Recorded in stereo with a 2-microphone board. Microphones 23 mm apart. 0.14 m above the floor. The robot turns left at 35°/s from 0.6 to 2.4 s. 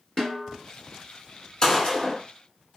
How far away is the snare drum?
About 1.4 m.